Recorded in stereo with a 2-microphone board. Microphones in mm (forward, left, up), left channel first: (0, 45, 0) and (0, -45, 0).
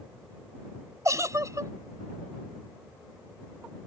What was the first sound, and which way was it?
A giggle, 40° right (ahead or behind).